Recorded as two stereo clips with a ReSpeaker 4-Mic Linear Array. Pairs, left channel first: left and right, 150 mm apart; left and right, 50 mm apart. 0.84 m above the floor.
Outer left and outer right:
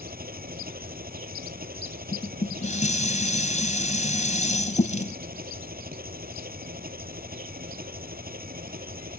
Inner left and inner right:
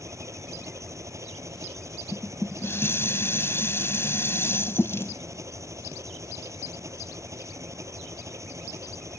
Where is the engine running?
85° right.